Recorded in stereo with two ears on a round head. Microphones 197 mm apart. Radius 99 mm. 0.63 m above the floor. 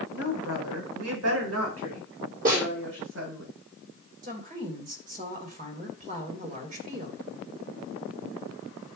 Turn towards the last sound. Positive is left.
turn(degrees=-40)  # may be behind; listen again after turning